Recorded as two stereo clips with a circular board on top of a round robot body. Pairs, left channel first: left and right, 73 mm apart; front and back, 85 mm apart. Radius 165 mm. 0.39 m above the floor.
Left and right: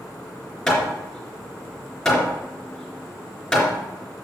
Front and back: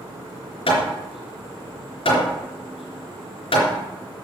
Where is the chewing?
No chewing in this recording.